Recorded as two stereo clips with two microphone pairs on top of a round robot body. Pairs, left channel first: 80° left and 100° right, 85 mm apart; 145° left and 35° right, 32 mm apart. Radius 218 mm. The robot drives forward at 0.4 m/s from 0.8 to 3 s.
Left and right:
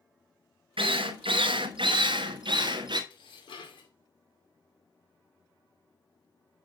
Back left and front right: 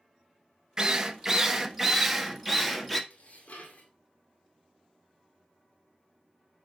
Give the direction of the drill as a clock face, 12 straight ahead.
3 o'clock.